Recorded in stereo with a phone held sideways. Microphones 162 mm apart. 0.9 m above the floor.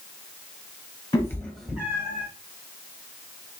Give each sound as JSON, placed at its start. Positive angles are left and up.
{"t": 1.1, "sound": "a cat meowing", "side_deg": 20, "distance_m": 1.2}